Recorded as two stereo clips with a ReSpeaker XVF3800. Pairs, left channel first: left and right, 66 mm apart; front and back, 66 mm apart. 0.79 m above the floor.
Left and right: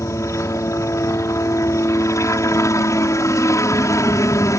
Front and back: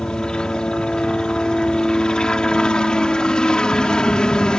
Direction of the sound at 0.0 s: 75° left.